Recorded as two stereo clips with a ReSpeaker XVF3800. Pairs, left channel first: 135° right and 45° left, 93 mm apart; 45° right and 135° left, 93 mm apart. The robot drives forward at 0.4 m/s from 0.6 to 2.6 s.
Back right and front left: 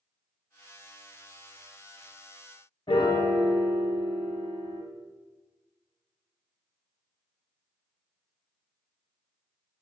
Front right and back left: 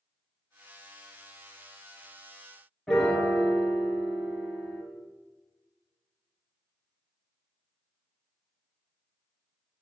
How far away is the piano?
About 0.6 m.